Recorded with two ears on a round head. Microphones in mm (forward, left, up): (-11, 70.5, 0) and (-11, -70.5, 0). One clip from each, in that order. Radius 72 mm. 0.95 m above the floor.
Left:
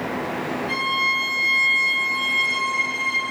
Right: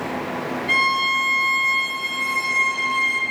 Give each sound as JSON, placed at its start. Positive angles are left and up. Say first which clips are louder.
{"t": 0.7, "sound": "a violin", "louder": "right 4 dB", "side_deg": -50, "distance_m": 0.8}